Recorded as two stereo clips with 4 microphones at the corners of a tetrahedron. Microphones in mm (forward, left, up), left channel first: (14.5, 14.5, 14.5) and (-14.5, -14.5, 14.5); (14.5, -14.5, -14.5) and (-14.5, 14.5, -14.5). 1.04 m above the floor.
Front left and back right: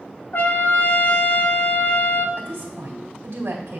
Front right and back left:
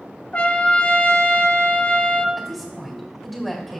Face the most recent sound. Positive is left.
turn(degrees=-135)